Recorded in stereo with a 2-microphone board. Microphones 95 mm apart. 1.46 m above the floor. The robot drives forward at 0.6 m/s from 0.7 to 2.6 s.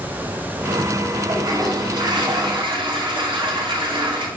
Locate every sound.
1.3 s a toilet flushing: 45° right (ahead or behind), 3 m; by 4.3 s 55° right (ahead or behind), 2.5 m